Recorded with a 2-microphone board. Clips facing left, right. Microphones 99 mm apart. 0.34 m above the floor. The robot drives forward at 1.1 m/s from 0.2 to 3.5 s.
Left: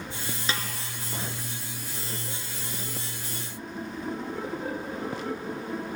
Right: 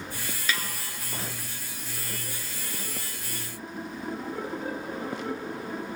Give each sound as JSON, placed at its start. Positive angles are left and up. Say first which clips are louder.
{"t": 0.5, "sound": "a snare drum", "louder": "right 1 dB", "side_deg": 30, "distance_m": 1.6}